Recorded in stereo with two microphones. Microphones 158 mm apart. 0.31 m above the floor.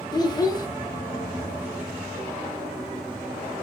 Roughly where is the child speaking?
Left.